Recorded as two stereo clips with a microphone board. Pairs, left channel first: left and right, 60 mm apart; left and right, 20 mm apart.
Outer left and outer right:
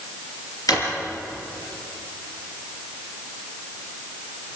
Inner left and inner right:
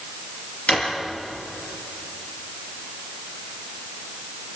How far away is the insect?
I don't hear an insect.